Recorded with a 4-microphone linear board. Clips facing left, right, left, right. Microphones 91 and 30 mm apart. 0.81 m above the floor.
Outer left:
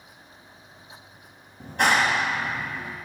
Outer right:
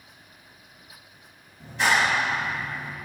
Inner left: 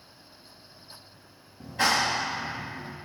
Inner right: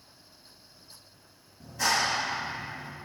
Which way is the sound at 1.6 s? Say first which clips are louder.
Outer left 1 dB, inner left 2 dB; 55° left (ahead or behind).